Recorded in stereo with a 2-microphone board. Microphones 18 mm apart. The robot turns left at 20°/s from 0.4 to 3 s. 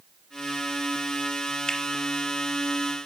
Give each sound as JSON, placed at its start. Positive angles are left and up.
{"t": 1.7, "sound": "a finger snap", "side_deg": 55, "distance_m": 1.9}